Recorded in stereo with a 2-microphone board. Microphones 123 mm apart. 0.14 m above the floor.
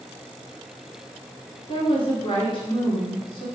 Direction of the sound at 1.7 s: 45° left (ahead or behind).